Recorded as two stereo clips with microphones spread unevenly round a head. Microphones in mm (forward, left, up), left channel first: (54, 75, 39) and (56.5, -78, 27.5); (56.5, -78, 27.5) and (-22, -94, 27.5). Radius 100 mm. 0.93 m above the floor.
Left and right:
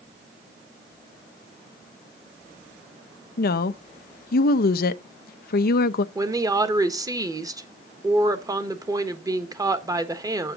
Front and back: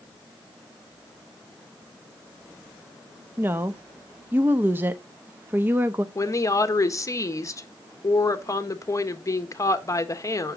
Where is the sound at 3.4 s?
120° left, 0.5 m.